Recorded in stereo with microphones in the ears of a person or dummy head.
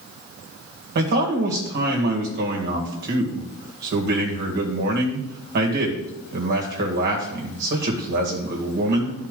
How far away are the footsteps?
I don't hear footsteps.